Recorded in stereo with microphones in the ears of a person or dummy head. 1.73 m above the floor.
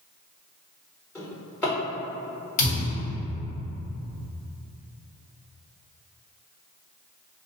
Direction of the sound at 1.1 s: 10° left (ahead or behind).